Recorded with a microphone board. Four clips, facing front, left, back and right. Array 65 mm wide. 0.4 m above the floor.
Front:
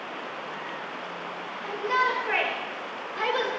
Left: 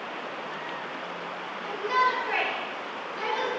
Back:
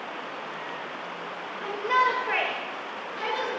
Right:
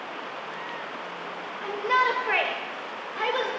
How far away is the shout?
About 1.2 m.